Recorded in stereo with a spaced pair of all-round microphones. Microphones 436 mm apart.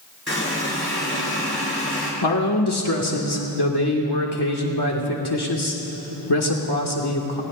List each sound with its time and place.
0.3 s a running tap: 30° left (ahead or behind), 4 m
2.2 s a man speaking: 60° left (ahead or behind), 1.6 m